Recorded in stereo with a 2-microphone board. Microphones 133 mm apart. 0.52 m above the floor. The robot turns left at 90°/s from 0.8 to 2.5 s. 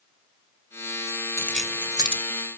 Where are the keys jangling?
20° left (ahead or behind), 1.4 m; by 2.2 s 50° right (ahead or behind), 1.4 m.